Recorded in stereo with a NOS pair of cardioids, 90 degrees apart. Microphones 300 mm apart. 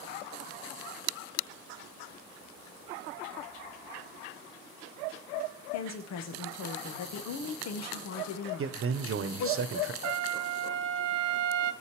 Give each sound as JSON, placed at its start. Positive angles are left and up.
{"t": 5.7, "sound": "a woman speaking", "azimuth_deg": 60, "distance_m": 1.5}
{"t": 8.6, "sound": "a man speaking", "azimuth_deg": -45, "distance_m": 1.1}
{"t": 10.0, "sound": "a trumpet", "azimuth_deg": -60, "distance_m": 0.8}